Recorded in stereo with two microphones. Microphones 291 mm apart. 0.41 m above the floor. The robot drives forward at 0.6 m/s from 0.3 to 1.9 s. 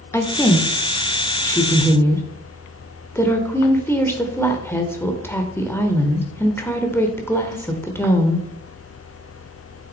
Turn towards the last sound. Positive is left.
turn(degrees=10)  # may be behind; listen again after turning